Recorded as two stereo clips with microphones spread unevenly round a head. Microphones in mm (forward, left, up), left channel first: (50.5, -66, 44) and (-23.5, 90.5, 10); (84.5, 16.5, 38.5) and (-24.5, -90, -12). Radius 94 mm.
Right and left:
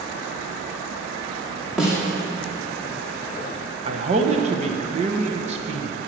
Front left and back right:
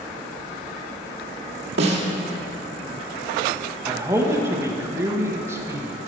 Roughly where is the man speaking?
Behind.